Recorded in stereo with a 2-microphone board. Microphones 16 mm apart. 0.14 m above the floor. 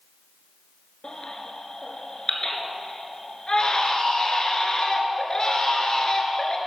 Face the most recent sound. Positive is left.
turn(degrees=50)  # may be behind; listen again after turning